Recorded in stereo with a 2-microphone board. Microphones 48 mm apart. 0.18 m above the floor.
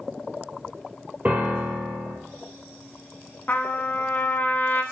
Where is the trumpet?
40° left (ahead or behind), 0.6 m.